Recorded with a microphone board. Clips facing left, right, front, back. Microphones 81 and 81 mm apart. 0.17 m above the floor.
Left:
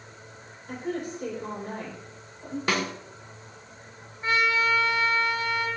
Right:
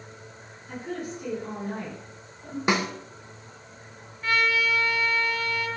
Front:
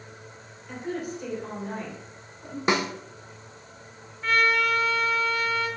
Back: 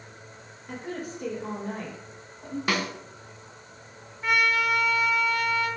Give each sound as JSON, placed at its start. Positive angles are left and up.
{"t": 0.7, "sound": "a woman speaking", "azimuth_deg": 130, "distance_m": 4.5}
{"t": 2.7, "sound": "a snare drum", "azimuth_deg": -40, "distance_m": 0.6}
{"t": 4.2, "sound": "a trumpet", "azimuth_deg": 115, "distance_m": 1.6}